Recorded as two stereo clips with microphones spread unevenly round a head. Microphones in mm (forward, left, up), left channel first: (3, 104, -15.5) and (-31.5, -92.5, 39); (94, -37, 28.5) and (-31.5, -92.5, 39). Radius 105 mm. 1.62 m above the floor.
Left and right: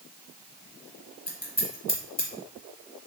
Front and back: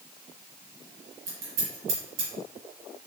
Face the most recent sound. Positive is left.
turn(degrees=160)